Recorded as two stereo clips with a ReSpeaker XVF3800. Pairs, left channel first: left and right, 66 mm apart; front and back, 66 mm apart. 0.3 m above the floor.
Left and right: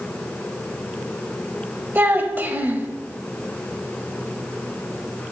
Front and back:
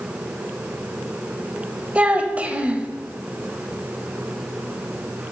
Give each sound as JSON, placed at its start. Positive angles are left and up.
{"t": 1.9, "sound": "a child speaking", "azimuth_deg": -125, "distance_m": 0.9}